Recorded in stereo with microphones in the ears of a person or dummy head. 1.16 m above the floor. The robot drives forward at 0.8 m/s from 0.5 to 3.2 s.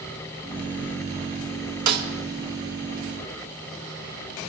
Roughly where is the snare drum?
Right.